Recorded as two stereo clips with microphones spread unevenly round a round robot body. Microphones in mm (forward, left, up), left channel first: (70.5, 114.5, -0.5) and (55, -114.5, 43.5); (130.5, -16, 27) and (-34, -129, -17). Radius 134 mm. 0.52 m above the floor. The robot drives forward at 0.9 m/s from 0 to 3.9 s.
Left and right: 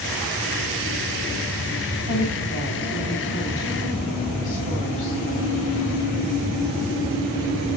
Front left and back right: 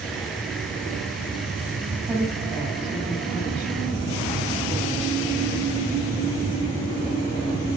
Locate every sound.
2.1 s a woman speaking: 130° left, 3.5 m; by 5.2 s 145° left, 4.5 m